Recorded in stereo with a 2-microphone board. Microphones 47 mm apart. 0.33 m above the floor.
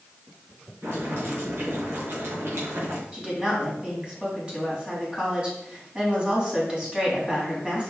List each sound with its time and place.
0.8 s boiling: 60° right (ahead or behind), 3.5 m
3.1 s a woman speaking: 20° right (ahead or behind), 3 m